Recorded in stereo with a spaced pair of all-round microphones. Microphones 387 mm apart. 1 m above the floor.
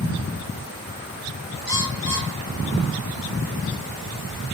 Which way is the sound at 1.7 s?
75° right (ahead or behind).